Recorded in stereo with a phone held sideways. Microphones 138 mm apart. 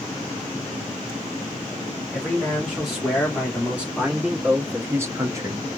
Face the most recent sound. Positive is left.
turn(degrees=-30)  # may be behind; listen again after turning